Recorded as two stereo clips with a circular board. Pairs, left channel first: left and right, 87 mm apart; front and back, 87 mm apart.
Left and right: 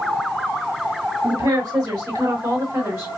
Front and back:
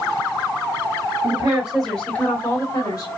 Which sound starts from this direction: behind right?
A woman speaking, at 1.2 s.